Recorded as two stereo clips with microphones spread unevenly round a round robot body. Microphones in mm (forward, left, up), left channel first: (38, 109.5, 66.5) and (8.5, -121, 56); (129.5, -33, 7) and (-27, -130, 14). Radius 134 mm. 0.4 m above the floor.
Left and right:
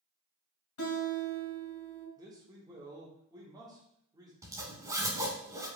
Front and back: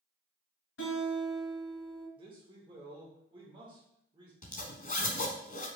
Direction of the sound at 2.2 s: 135° right.